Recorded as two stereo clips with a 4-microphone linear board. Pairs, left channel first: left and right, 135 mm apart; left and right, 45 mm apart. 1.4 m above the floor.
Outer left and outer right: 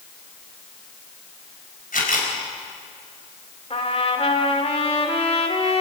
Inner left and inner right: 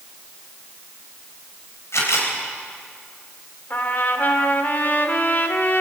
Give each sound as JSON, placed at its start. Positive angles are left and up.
{"t": 1.9, "sound": "a camera shutter", "side_deg": 80, "distance_m": 4.5}
{"t": 3.7, "sound": "a trumpet", "side_deg": 45, "distance_m": 1.8}